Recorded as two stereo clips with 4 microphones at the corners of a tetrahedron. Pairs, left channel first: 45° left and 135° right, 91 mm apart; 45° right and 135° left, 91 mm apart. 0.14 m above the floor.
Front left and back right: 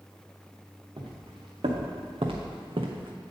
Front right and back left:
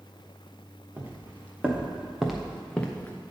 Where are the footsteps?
155° right, 1.6 m; by 3.2 s 110° right, 0.8 m.